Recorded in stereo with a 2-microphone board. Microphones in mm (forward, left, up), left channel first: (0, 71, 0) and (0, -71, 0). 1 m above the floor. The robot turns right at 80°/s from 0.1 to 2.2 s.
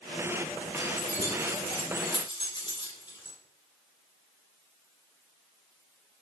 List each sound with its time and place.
0.8 s keys jangling: 35° left (ahead or behind), 2 m; by 3.4 s 30° left (ahead or behind), 2 m